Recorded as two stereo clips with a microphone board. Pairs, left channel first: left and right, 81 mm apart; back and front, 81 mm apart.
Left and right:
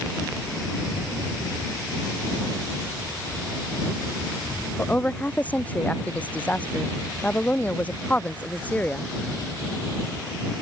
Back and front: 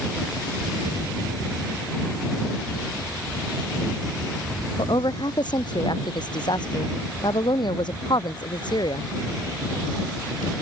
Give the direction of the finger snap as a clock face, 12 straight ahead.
No finger snap in this recording.